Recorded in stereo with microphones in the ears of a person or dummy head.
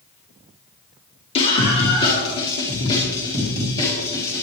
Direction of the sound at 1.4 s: 30° left (ahead or behind).